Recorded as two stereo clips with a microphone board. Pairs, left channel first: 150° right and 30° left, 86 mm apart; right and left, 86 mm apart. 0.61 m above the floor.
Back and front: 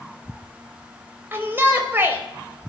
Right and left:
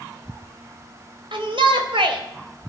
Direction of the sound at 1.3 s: 95° left.